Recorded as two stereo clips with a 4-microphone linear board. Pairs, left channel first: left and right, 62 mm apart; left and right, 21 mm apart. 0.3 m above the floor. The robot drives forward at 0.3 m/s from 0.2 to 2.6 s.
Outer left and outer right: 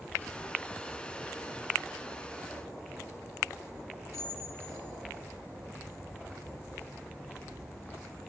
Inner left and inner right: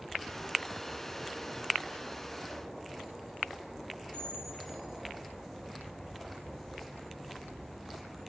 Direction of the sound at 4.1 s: 55° left (ahead or behind).